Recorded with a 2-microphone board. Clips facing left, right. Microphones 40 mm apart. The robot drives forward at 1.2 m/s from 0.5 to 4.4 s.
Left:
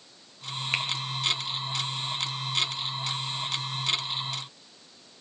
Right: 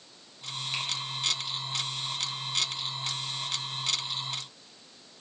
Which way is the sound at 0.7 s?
55° left (ahead or behind).